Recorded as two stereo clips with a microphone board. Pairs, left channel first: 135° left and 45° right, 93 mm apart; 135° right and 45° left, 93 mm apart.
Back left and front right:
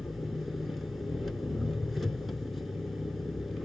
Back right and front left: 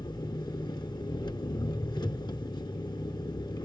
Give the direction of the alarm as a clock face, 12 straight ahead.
I don't hear an alarm.